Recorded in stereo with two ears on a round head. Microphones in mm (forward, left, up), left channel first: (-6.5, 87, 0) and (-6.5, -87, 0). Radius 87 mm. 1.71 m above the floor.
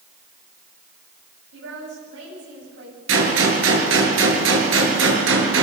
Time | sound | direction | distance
1.5 | a woman speaking | 70° right (ahead or behind) | 9 m
3.1 | a gunshot | 75° right (ahead or behind) | 6 m